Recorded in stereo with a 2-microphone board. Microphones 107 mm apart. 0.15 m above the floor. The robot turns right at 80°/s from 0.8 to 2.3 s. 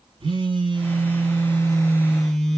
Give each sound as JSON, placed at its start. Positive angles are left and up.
{"t": 0.2, "sound": "a phone buzzing", "azimuth_deg": -115, "distance_m": 0.9}